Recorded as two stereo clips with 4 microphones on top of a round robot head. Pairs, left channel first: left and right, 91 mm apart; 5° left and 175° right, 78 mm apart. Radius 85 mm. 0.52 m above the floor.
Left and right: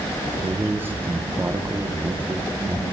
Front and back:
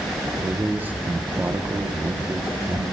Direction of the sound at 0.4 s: 130° right.